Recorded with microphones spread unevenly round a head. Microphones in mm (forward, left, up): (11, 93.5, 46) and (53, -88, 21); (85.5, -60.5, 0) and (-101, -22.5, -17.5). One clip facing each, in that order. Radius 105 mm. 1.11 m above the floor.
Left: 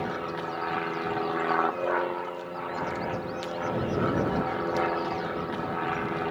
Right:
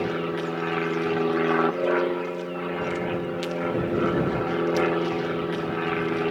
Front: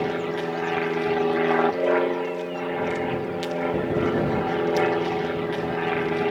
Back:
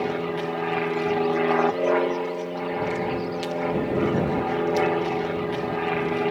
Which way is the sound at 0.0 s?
95° right.